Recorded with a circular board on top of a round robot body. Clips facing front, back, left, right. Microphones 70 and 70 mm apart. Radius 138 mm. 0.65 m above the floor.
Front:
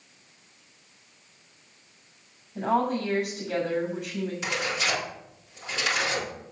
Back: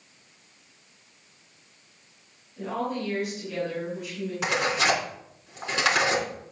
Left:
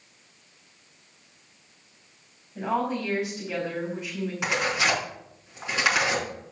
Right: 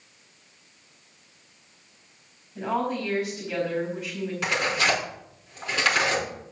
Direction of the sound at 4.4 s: 160° left.